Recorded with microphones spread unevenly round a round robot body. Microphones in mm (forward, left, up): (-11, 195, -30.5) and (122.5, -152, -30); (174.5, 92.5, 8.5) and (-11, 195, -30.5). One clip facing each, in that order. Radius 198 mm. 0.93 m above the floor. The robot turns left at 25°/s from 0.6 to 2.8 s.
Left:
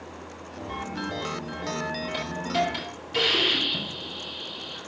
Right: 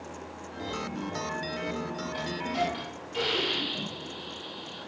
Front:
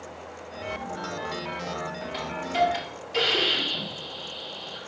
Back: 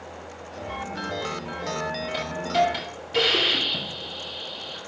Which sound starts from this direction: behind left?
A hiss, at 2.1 s.